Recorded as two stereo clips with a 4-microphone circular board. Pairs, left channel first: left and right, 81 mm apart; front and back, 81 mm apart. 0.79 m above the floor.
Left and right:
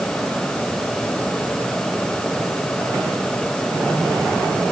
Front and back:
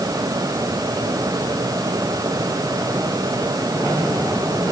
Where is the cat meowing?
No cat meowing in this recording.